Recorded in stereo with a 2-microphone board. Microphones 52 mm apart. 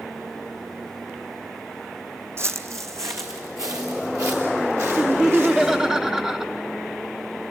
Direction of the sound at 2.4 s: 55° right (ahead or behind).